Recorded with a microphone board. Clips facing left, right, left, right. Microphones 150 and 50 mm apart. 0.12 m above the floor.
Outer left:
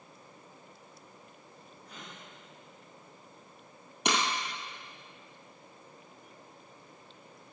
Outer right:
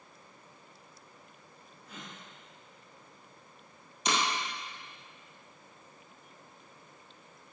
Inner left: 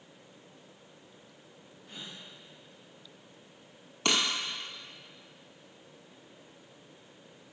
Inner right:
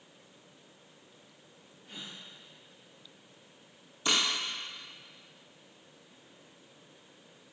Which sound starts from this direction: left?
Breaking glass, at 4.0 s.